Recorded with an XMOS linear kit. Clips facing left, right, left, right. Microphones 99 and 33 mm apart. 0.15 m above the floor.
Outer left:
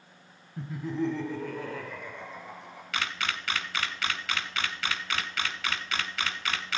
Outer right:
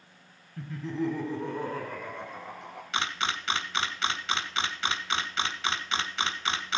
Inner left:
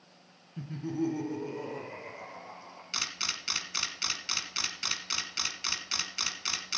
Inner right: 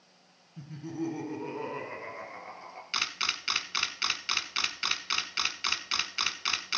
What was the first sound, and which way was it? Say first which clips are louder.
Laughter: outer left 1 dB, inner left 3 dB; 25° left (ahead or behind).